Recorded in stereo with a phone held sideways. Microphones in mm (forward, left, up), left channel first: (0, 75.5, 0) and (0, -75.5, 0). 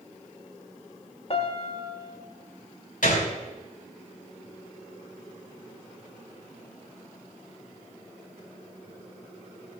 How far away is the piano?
About 1.1 m.